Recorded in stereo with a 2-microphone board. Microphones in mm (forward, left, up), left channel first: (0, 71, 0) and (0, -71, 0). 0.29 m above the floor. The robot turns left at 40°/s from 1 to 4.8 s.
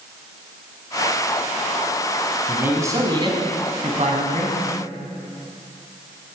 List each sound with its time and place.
2.5 s a man speaking: 10° right, 2.0 m; by 4.6 s 95° right, 2.0 m